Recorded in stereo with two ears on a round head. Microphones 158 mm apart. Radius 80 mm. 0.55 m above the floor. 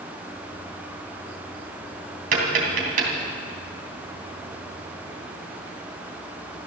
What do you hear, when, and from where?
2.3 s tapping: 50° right (ahead or behind), 3 m